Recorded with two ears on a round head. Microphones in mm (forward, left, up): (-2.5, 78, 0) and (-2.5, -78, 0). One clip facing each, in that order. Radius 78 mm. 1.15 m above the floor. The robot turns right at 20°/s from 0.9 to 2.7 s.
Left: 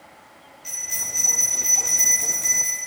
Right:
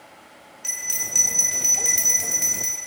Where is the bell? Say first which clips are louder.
Right 2 dB; 85° right, 4 m; by 2.8 s 45° right, 4 m.